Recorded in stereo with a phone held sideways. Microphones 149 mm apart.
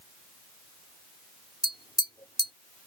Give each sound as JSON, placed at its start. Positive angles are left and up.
{"t": 1.6, "sound": "tapping", "side_deg": 30}